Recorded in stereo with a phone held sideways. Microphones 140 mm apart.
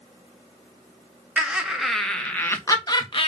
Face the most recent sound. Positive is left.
turn(degrees=40)  # may be behind; listen again after turning